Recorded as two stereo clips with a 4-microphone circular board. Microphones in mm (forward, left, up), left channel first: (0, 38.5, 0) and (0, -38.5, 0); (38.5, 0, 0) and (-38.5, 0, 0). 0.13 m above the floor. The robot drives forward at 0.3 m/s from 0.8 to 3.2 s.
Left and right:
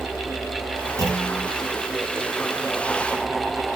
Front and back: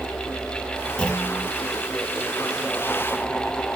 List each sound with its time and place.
1.0 s a clunk: 70° right, 2.5 m; by 1.5 s 75° right, 2 m